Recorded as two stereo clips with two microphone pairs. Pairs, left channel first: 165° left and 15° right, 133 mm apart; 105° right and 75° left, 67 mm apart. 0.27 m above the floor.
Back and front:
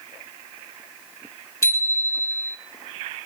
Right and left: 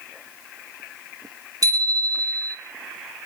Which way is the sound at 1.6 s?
100° left.